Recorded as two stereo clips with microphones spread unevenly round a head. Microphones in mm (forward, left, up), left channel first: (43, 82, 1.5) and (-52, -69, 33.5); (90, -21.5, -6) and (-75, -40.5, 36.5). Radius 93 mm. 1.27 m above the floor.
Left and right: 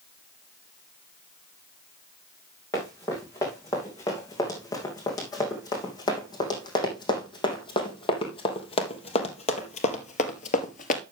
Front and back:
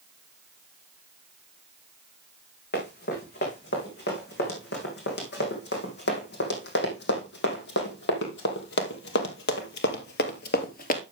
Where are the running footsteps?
20° right, 5.5 m; by 11.0 s 35° left, 1.4 m.